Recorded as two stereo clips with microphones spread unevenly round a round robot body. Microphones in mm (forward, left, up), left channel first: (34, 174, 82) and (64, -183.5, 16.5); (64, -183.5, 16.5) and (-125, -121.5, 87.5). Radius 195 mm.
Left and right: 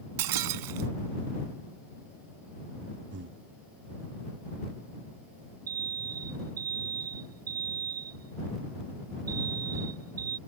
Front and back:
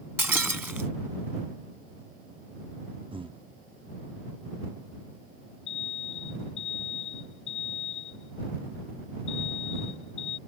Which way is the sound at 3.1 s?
125° right.